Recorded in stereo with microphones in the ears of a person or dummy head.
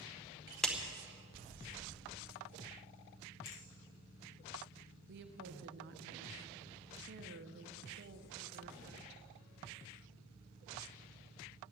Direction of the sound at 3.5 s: 60° left (ahead or behind).